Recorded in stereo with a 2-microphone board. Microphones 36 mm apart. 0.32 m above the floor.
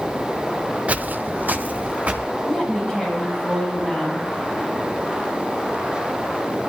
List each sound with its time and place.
0.9 s footsteps: 40° right (ahead or behind), 0.6 m
2.5 s a woman speaking: 15° left (ahead or behind), 9.5 m